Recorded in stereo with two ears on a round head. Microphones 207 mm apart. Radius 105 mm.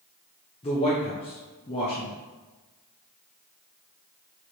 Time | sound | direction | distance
0.6 | a man speaking | 25° left (ahead or behind) | 0.6 m